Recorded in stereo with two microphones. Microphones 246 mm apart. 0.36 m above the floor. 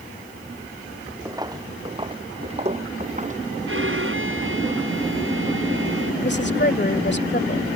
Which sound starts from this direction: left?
A woman speaking, at 6.2 s.